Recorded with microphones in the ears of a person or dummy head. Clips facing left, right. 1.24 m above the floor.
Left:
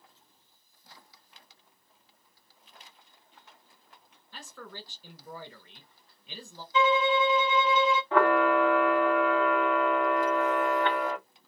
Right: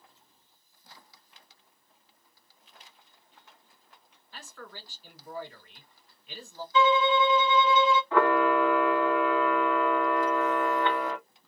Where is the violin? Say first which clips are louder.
Right 1 dB; 20° left (ahead or behind), 0.8 m.